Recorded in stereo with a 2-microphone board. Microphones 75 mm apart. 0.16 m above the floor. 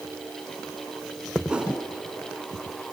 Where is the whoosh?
15° right (ahead or behind), 1.6 m.